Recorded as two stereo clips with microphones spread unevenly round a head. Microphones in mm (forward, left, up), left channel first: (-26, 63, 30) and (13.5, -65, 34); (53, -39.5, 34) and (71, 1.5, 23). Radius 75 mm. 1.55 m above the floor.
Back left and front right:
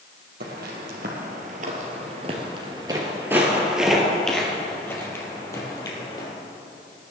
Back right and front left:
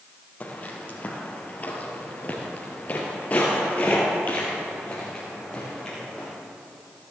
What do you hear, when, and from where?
0.4 s footsteps: 75° right, 3 m; by 6.3 s 165° left, 3.5 m